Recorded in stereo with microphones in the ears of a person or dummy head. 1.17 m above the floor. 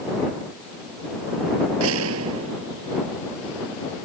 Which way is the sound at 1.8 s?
85° right.